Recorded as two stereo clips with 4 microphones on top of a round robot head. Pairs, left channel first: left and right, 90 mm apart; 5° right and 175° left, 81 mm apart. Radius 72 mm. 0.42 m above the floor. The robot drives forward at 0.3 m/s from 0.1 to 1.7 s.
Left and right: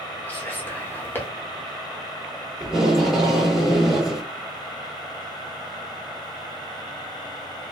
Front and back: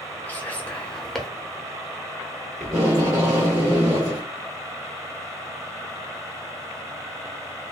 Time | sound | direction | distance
0.3 | whispering | 40° left | 1.0 m
2.6 | tape being pulled | 170° right | 1.7 m